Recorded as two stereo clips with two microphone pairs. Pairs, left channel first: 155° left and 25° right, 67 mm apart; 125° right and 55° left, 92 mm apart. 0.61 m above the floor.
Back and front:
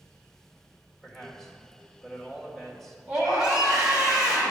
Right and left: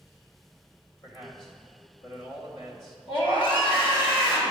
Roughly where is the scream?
Right.